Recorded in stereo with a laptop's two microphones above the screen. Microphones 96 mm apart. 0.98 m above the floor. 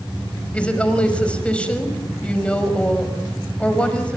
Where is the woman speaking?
10° left (ahead or behind), 5.5 m.